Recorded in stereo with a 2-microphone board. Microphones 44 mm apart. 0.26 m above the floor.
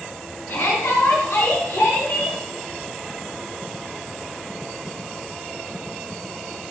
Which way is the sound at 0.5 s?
60° left (ahead or behind).